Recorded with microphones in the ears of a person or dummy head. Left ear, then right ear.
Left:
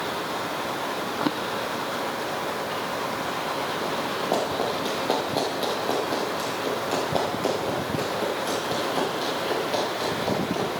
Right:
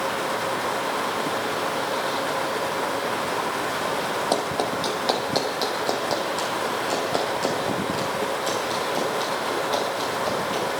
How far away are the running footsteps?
About 3.5 m.